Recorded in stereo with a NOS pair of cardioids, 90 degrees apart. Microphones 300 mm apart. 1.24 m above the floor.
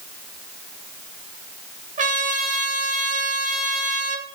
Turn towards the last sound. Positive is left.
turn(degrees=-25)